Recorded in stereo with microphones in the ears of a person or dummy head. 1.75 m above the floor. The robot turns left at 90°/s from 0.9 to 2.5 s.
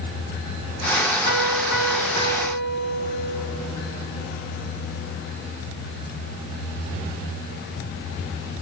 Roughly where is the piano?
Behind left.